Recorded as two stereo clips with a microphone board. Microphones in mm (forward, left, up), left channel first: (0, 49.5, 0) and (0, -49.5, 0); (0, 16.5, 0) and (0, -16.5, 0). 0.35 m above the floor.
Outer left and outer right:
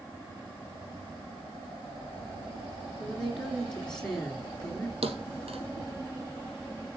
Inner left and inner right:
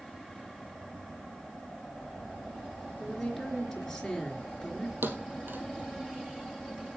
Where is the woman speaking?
5° left (ahead or behind), 4.5 m.